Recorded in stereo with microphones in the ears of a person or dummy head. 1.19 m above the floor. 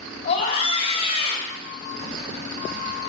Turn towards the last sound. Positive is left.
turn(degrees=45)  # may be behind; listen again after turning